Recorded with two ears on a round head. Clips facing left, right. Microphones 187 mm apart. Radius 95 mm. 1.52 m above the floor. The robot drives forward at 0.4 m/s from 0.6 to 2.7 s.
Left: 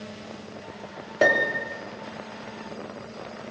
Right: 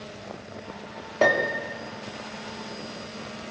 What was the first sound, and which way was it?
A piano, 10° left (ahead or behind).